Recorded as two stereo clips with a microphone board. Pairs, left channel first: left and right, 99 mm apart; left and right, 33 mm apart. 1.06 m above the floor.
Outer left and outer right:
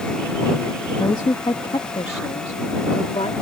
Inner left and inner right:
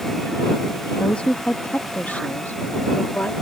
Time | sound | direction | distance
1.0 | a woman speaking | 40° left (ahead or behind) | ?